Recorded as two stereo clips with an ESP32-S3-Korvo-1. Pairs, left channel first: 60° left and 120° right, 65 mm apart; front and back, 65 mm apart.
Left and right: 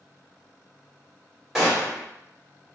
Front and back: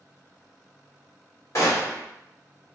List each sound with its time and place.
1.6 s a gunshot: 35° right, 1.6 m